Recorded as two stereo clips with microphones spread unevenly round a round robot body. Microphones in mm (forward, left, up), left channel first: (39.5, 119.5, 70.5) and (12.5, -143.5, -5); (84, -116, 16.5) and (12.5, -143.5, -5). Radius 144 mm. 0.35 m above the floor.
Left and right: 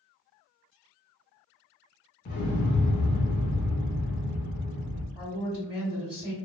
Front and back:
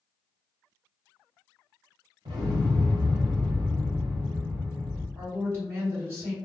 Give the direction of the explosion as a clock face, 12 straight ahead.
7 o'clock.